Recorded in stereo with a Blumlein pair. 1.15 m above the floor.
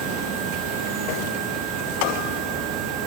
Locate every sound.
0.0 s an insect: 30° right, 2.0 m